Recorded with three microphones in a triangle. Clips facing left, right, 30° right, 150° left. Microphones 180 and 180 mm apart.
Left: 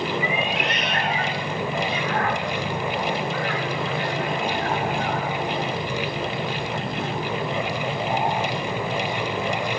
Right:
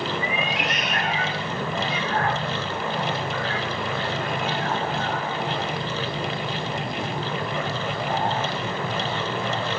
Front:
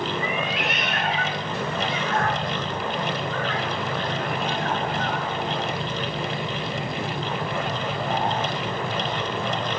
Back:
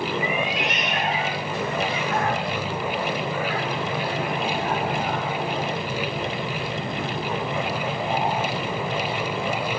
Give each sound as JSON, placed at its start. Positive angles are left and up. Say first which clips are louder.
{"t": 0.2, "sound": "a cat meowing", "louder": "left 2 dB, back 1 dB", "azimuth_deg": -140, "distance_m": 4.5}